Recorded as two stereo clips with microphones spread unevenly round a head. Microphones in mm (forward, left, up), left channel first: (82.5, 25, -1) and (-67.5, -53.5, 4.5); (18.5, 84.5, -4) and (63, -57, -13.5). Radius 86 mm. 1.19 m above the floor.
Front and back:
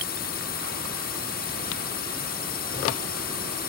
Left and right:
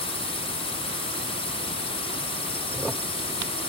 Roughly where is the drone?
Ahead left.